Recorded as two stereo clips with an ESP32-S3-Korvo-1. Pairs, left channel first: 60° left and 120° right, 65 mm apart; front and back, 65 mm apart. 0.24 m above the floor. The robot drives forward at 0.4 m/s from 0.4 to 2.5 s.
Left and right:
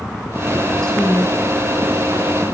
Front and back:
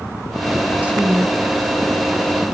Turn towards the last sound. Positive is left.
turn(degrees=155)